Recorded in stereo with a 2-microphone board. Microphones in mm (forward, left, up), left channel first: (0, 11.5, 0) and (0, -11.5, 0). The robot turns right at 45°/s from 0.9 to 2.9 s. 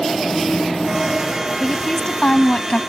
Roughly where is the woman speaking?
Ahead.